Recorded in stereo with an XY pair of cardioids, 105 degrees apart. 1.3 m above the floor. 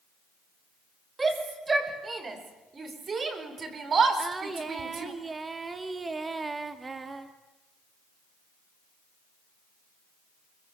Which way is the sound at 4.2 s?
25° right.